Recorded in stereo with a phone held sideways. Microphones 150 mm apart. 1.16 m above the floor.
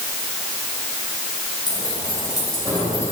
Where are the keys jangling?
35° left (ahead or behind), 4 m; by 3.1 s 20° left (ahead or behind), 3 m.